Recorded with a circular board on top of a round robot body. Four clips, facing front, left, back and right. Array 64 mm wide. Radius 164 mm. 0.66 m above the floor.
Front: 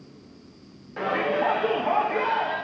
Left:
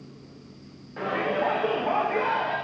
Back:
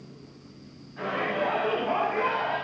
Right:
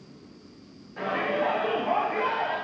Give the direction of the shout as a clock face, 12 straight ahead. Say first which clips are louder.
Left 1 dB, front 4 dB; 12 o'clock.